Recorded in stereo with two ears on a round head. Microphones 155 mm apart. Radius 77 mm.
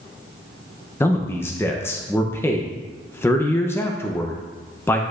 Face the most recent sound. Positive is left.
turn(degrees=15)  # may be behind; listen again after turning